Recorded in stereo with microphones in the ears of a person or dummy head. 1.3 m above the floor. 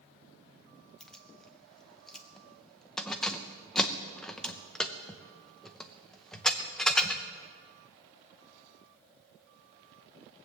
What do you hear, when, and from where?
1.0 s keys jangling: 5° left (ahead or behind), 0.6 m